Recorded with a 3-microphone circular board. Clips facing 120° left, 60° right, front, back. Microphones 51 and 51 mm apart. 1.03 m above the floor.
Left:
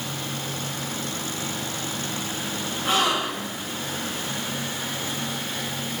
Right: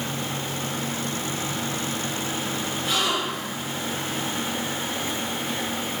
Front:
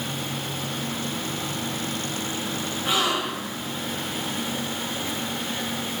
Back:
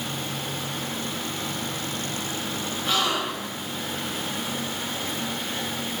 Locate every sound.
2.9 s a gasp: 70° left, 1.9 m